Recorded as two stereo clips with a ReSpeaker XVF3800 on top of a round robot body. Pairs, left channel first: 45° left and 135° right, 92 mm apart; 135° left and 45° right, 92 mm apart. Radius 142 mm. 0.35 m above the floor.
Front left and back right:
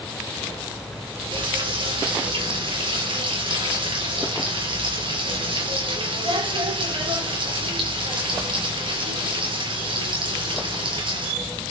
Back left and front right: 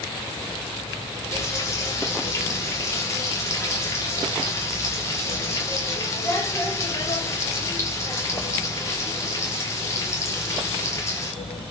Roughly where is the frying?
Behind.